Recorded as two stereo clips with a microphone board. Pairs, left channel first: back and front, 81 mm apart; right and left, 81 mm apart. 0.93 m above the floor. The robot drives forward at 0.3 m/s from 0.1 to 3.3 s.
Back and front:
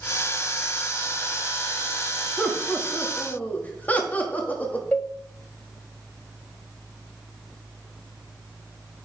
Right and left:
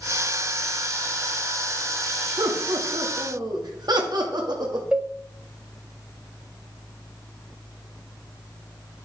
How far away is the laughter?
About 1.4 m.